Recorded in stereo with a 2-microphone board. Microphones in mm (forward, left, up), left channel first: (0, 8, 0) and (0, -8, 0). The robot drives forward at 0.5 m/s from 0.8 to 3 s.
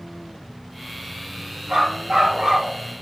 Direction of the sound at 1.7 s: 70° right (ahead or behind).